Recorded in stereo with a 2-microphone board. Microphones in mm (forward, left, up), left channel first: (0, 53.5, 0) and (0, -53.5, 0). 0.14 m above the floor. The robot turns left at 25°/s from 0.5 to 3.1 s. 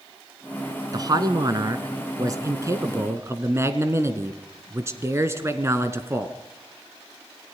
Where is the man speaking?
80° right, 1.8 m; by 6.4 s 135° right, 1.8 m.